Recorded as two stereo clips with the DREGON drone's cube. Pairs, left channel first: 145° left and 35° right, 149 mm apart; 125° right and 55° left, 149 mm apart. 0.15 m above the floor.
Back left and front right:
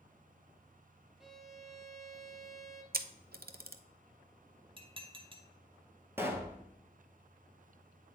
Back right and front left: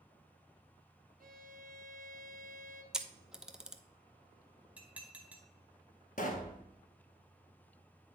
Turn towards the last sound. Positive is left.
turn(degrees=-110)